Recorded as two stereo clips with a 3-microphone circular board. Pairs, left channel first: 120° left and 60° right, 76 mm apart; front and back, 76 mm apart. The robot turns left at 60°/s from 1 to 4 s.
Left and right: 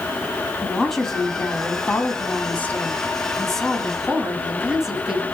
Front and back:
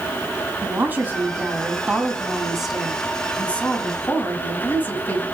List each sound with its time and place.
0.6 s a woman speaking: 165° right, 1.6 m; by 5.2 s 15° left, 1.6 m